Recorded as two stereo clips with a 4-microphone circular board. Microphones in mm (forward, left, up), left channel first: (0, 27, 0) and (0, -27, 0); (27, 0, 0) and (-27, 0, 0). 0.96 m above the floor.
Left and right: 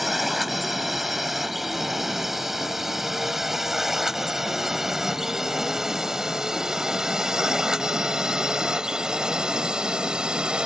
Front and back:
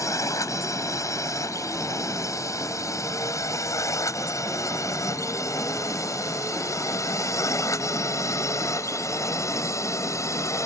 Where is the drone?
5° right; by 10.7 s 15° right.